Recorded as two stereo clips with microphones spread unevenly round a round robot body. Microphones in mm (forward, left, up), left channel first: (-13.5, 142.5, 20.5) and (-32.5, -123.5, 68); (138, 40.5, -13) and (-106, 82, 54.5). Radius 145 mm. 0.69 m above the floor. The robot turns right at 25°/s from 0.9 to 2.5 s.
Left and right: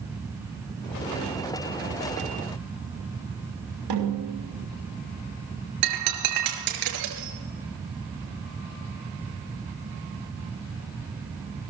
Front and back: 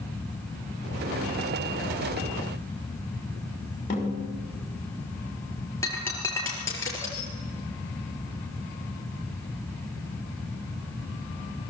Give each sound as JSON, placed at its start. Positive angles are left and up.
{"t": 3.9, "sound": "a snare drum", "azimuth_deg": -75, "distance_m": 6.0}
{"t": 5.8, "sound": "breaking glass", "azimuth_deg": -90, "distance_m": 5.0}